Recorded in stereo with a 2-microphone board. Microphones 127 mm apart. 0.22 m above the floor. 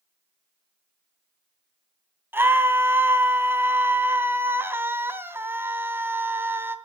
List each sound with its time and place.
2.3 s a scream: 15° right (ahead or behind), 2 m